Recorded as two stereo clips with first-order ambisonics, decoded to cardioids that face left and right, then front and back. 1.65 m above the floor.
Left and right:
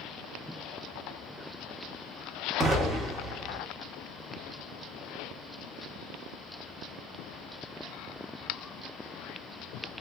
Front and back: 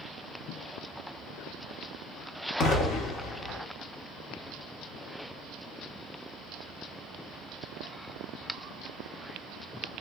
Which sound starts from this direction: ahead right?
An explosion, at 2.6 s.